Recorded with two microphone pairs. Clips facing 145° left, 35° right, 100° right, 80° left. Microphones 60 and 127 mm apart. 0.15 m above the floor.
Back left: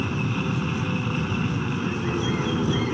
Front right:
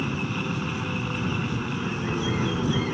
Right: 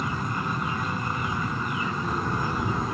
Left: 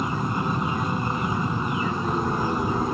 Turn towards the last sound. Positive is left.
turn(degrees=60)